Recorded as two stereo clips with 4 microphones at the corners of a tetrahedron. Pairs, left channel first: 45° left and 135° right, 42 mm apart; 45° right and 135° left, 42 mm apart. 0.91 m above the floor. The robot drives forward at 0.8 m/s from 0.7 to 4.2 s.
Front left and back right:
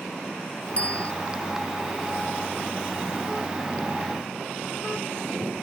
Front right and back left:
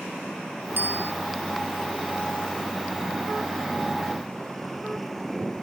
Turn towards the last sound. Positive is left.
turn(degrees=115)